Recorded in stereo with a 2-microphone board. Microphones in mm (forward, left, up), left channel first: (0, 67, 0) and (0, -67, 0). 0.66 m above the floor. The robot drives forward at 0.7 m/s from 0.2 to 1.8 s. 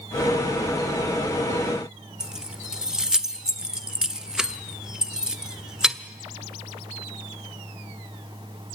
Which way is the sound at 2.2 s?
5° right (ahead or behind).